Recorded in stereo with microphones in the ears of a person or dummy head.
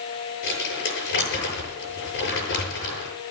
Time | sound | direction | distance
0.4 | crumpling | 80° left | 8.5 m